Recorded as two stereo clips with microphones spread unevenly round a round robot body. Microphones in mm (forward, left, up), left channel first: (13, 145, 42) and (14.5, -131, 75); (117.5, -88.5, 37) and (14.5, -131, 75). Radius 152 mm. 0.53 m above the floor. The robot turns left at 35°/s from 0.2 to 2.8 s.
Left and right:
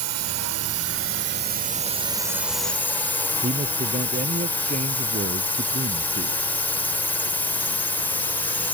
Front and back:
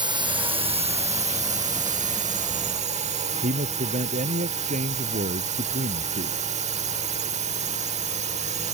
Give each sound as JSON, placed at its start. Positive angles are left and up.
{"t": 0.0, "sound": "a drone", "azimuth_deg": -100}
{"t": 3.4, "sound": "a man speaking", "azimuth_deg": -155}